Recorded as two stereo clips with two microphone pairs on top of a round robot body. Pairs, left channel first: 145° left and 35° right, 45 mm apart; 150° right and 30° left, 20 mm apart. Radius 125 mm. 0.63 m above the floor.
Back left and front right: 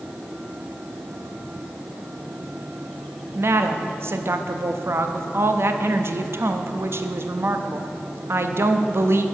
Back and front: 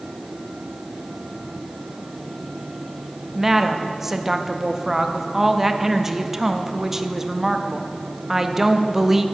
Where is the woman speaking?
35° right, 0.7 m.